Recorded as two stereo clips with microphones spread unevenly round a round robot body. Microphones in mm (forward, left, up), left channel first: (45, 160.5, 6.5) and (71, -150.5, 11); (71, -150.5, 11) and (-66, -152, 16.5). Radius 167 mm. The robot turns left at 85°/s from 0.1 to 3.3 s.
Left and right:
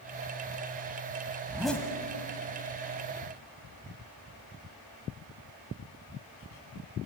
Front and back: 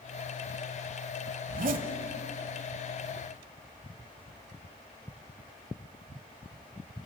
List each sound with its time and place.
1.5 s a zipper: 160° right, 1.5 m; by 1.9 s 165° left, 1.5 m